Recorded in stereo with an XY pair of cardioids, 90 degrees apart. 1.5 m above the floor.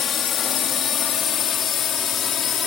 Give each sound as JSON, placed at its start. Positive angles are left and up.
{"t": 0.0, "sound": "a drone", "azimuth_deg": 65}